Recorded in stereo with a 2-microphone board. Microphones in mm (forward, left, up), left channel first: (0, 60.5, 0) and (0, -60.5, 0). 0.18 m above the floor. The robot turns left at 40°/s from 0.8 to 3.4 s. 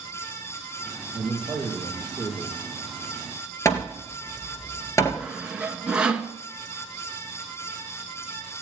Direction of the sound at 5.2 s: 10° right (ahead or behind).